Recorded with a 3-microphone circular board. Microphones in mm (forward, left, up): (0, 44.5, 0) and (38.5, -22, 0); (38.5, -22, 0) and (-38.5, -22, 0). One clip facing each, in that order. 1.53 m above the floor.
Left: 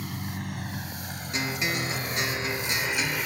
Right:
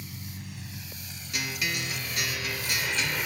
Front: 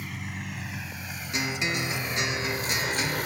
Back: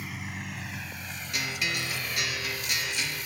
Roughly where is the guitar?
Ahead left.